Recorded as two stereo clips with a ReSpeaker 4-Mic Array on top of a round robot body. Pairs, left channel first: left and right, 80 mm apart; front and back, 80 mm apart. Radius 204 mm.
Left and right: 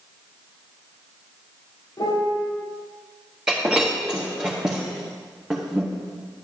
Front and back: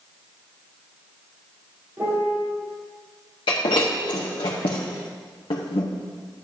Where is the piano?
125° left, 2 m.